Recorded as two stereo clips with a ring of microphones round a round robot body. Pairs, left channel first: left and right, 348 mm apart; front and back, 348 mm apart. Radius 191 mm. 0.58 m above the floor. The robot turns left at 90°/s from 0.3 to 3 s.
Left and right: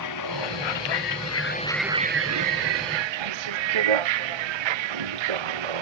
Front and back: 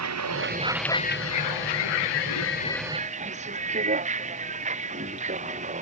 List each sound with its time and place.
0.0 s a vehicle: 135° left; by 5.8 s 105° right